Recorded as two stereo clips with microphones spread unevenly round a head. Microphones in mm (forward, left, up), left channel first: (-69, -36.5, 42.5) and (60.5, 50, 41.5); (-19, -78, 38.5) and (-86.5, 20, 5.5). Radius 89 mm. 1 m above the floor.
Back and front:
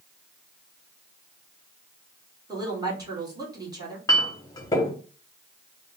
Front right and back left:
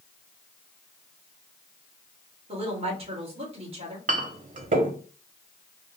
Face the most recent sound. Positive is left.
turn(degrees=145)